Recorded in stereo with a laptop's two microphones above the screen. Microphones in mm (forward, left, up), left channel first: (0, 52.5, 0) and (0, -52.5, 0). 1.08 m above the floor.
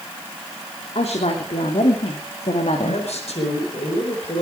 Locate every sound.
0.9 s a woman speaking: 75° left (ahead or behind), 3.5 m; by 3.0 s 70° left (ahead or behind), 2.5 m
2.8 s a man speaking: 80° left, 4.5 m